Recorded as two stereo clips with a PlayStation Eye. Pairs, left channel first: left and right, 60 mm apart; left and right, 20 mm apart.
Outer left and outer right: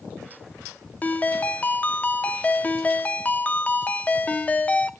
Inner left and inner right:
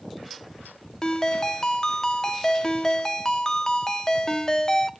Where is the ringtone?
25° left (ahead or behind), 0.6 m.